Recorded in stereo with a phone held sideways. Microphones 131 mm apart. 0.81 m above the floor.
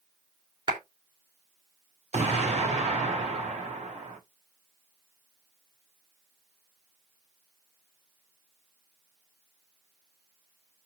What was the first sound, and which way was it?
A clap, 45° right (ahead or behind).